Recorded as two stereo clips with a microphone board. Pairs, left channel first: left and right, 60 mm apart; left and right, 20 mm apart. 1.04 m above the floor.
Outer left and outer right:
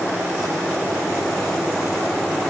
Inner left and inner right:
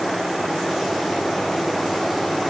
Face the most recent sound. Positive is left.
No sound to turn to.